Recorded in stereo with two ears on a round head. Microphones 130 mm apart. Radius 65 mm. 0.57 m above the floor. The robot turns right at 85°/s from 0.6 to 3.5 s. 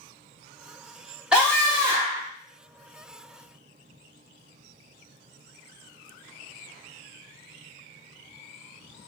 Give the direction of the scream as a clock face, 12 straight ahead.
6 o'clock.